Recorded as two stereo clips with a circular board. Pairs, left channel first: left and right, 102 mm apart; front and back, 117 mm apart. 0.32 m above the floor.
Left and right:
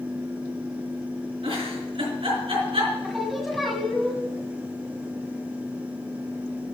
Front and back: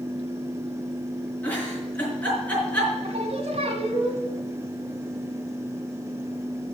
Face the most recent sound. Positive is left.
turn(degrees=180)